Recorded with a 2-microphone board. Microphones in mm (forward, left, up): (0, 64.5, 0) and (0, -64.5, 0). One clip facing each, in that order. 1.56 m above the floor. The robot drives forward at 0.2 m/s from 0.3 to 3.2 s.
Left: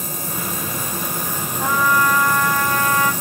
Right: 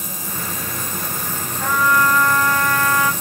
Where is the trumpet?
15° left (ahead or behind), 1.2 m.